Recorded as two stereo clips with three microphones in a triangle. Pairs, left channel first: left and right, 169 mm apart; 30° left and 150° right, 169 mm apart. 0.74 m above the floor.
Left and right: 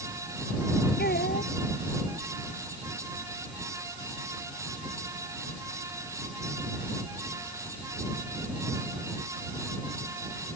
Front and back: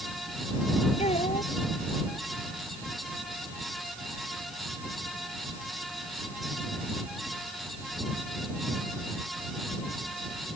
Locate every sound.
1.0 s a child speaking: 80° left